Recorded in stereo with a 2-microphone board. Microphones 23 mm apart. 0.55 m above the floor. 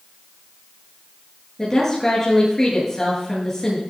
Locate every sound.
1.6 s a woman speaking: 15° left (ahead or behind), 8.5 m